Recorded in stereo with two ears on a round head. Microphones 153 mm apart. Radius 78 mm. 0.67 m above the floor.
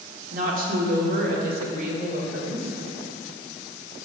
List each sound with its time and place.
0.3 s a woman speaking: 55° right (ahead or behind), 1.9 m; by 2.7 s 65° right (ahead or behind), 3 m